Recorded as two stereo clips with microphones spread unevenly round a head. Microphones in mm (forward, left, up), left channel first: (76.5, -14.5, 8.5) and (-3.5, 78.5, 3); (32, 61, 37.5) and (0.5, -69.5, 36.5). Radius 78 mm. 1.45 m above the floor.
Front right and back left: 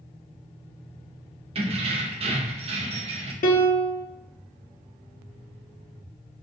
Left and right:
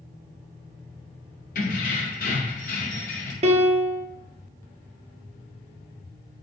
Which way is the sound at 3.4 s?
65° right.